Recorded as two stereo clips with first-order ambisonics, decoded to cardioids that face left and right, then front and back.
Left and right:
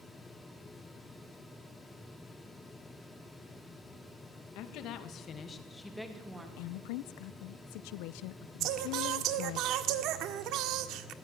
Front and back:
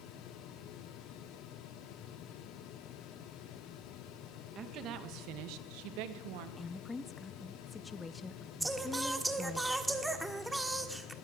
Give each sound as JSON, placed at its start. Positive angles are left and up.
{"t": 4.5, "sound": "a woman speaking", "azimuth_deg": 120, "distance_m": 2.0}
{"t": 6.6, "sound": "a woman speaking", "azimuth_deg": 75, "distance_m": 0.7}
{"t": 8.6, "sound": "singing", "azimuth_deg": -95, "distance_m": 1.4}